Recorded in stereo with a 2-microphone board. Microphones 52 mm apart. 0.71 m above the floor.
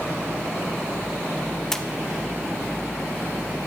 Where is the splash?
10° left (ahead or behind), 0.8 m.